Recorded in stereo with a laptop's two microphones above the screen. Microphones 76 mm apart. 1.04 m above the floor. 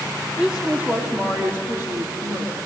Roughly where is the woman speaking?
Centre.